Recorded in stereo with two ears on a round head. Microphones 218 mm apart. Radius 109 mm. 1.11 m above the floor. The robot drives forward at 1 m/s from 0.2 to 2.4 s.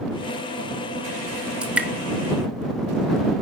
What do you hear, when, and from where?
1.6 s dripping: 5° right (ahead or behind), 1.0 m